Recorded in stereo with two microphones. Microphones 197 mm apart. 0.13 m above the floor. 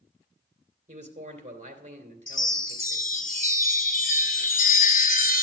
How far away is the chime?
About 1.1 m.